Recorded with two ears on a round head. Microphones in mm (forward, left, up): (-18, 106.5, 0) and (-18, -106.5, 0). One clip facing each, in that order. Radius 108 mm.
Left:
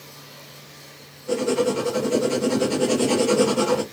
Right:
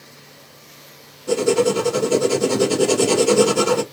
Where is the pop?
I don't hear a pop.